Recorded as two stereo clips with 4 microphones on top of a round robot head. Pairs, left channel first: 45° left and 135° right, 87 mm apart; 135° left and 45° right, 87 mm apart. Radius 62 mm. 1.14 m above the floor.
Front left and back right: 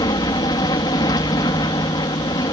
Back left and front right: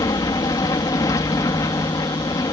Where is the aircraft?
85° left.